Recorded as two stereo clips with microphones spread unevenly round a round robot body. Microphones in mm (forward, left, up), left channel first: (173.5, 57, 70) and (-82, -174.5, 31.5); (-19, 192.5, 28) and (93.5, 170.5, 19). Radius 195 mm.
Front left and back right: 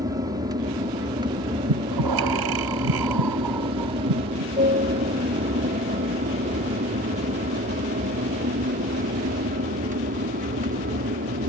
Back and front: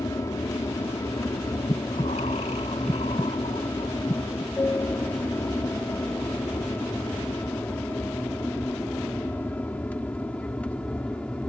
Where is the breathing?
125° right.